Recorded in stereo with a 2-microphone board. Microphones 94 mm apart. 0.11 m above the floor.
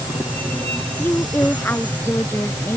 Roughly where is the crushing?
I don't hear crushing.